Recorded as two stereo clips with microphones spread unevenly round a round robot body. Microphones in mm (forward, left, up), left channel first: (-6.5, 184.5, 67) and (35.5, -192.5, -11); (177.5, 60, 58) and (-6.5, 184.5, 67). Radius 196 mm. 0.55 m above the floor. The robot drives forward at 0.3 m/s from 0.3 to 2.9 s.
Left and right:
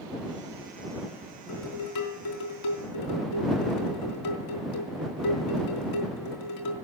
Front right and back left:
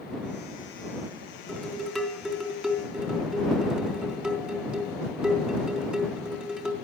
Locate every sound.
1.5 s dishes clattering: 55° left, 4 m; by 6.7 s 60° left, 4 m